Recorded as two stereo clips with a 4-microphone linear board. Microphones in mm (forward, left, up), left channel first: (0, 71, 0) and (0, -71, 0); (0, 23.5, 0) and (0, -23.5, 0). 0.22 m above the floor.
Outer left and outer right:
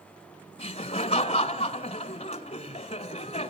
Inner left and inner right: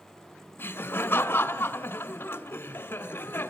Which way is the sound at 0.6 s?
45° left (ahead or behind).